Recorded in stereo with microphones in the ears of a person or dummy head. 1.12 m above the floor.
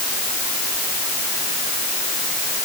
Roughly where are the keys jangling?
No keys jangling in this recording.